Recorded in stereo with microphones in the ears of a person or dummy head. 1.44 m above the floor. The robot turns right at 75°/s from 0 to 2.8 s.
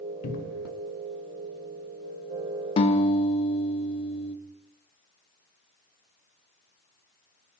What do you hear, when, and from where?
0.2 s a cupboard door: 45° left (ahead or behind), 2.5 m; by 0.7 s 70° left (ahead or behind), 2.5 m
2.8 s a guitar: 25° left (ahead or behind), 2 m; by 4.3 s 30° left (ahead or behind), 2 m